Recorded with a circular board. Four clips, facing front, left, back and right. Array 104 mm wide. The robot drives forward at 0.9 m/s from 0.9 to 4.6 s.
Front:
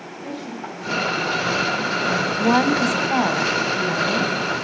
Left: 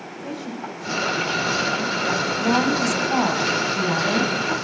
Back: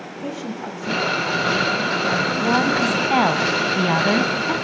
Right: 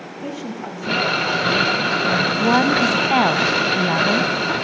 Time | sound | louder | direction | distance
0.2 | a woman speaking | right 3 dB, back 3 dB | 130° right | 7 m
2.4 | a woman speaking | right 4 dB, front 3 dB | 50° right | 1.4 m